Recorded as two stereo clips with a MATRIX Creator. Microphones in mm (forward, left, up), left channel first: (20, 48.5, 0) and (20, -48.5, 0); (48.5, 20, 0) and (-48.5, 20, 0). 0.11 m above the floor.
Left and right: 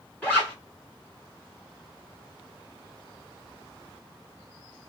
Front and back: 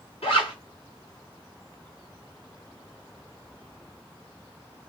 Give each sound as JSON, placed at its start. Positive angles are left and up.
{"t": 0.2, "sound": "a zipper", "azimuth_deg": 15, "distance_m": 1.6}